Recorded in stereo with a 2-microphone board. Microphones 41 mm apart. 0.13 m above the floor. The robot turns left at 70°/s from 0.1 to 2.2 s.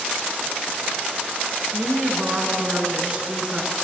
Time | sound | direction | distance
1.7 | a woman speaking | 105° right | 1.6 m